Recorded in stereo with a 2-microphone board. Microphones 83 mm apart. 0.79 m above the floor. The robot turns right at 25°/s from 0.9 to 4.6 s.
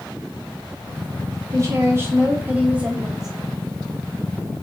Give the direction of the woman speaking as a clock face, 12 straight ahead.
2 o'clock.